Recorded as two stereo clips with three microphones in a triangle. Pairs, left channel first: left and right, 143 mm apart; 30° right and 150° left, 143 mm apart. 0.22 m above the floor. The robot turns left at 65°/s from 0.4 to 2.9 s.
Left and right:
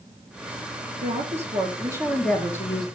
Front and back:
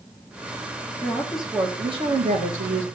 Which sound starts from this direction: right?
A woman speaking, at 1.0 s.